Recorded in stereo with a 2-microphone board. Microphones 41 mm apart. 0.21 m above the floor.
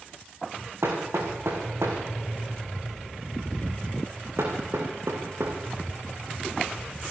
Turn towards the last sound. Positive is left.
turn(degrees=-90)